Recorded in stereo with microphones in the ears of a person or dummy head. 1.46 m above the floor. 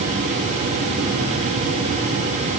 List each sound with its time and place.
Only background noise.